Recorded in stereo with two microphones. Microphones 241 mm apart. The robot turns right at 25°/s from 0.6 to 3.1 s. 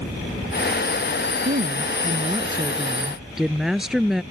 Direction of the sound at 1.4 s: 45° right.